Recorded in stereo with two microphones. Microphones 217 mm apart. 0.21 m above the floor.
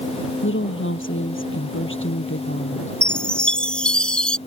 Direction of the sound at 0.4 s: 65° left (ahead or behind).